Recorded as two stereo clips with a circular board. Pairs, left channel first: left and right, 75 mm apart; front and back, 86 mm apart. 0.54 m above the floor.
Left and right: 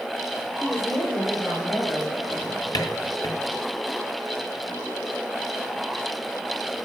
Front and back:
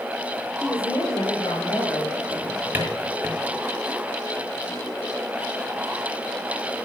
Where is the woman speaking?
20° left, 1.9 m; by 2.2 s 30° left, 4 m.